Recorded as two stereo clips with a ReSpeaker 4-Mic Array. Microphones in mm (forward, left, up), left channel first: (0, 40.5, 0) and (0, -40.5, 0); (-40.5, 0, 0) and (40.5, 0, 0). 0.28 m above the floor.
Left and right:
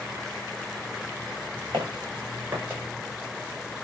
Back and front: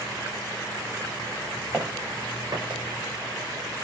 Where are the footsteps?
75° right, 1.2 m; by 2.8 s 15° right, 1.2 m.